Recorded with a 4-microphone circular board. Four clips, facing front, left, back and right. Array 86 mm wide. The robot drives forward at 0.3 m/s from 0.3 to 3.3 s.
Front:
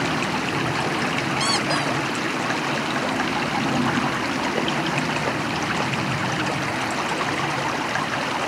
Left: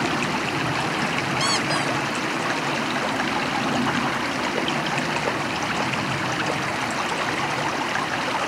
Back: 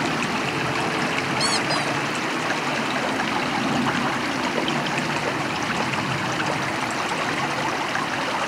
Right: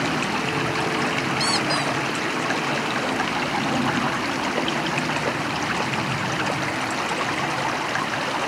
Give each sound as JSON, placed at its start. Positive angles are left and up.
{"t": 1.4, "sound": "a squeak", "azimuth_deg": 45, "distance_m": 0.9}